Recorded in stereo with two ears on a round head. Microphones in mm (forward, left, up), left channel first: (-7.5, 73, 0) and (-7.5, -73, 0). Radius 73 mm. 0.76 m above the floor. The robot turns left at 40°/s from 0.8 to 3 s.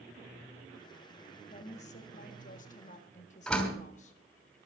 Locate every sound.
1.5 s a woman speaking: 125° left, 1.6 m; by 4.2 s 65° left, 1.6 m
3.5 s a door slam: 5° left (ahead or behind), 3 m